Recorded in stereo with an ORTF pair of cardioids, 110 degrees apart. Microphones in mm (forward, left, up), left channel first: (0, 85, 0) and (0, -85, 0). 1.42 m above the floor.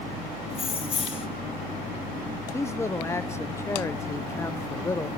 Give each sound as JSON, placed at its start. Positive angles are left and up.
{"t": 0.5, "sound": "keys jangling", "azimuth_deg": 35, "distance_m": 1.1}
{"t": 2.5, "sound": "a man speaking", "azimuth_deg": 15, "distance_m": 0.6}